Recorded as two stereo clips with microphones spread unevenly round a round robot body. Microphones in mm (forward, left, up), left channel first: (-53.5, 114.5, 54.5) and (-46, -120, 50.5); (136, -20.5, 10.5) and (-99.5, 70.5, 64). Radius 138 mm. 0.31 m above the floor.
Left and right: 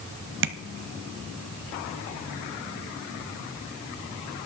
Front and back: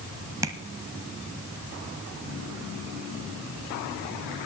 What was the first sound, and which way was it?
Tapping, 120° right.